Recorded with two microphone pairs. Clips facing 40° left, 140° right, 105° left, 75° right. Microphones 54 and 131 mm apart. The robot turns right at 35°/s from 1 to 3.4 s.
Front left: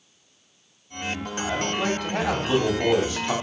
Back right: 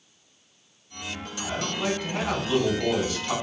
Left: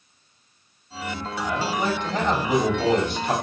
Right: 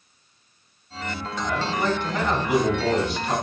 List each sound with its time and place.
1.4 s a man speaking: 25° left, 1.4 m; by 3.3 s 90° left, 1.4 m